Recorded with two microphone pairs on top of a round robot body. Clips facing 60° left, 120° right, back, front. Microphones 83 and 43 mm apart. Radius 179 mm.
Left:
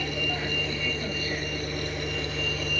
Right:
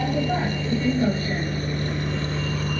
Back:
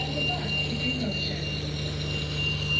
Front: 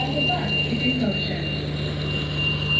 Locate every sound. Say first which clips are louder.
0.0 s a vehicle: right 8 dB, front 6 dB; 65° right